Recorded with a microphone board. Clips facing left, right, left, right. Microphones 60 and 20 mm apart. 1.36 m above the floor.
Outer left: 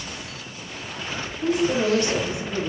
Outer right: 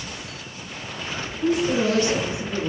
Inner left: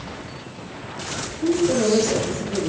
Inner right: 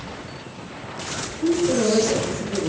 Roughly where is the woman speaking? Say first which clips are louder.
Outer right 1 dB, even; centre.